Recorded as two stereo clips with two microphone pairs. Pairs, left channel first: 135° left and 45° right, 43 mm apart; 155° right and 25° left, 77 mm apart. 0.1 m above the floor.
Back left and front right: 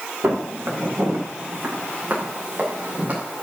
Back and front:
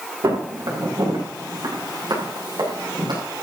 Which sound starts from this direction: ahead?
Footsteps, at 0.2 s.